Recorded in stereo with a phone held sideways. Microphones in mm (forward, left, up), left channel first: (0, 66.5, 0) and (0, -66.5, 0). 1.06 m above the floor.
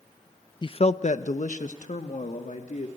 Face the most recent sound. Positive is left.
turn(degrees=65)  # may be behind; listen again after turning